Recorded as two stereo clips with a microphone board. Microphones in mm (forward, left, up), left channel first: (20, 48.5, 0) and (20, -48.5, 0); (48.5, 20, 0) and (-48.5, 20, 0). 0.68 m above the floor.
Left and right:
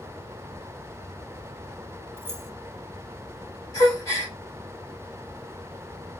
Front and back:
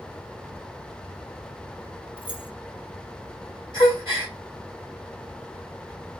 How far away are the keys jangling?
About 0.9 m.